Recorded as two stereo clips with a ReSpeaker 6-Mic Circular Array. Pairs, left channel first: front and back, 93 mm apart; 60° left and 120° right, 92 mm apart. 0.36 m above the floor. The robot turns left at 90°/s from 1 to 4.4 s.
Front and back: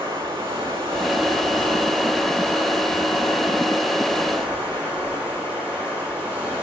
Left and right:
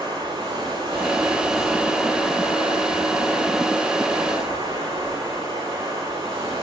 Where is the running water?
160° right, 6 m; by 6.6 s 105° right, 6 m.